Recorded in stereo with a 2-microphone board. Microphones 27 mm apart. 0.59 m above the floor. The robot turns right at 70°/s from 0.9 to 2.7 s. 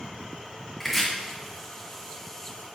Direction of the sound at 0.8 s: 10° left (ahead or behind).